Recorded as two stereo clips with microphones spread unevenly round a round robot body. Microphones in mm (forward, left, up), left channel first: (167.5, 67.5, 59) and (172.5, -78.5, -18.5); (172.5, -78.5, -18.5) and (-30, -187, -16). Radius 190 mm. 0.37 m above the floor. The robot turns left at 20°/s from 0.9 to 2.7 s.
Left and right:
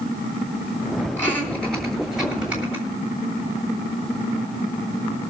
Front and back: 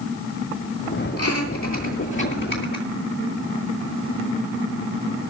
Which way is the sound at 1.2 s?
15° left.